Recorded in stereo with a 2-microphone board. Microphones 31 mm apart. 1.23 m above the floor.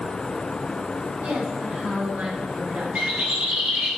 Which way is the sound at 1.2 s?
75° right (ahead or behind).